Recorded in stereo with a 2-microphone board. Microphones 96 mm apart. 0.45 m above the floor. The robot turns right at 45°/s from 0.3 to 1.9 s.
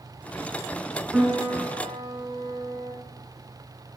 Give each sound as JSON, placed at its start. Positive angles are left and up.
{"t": 1.1, "sound": "a piano", "azimuth_deg": -175, "distance_m": 2.5}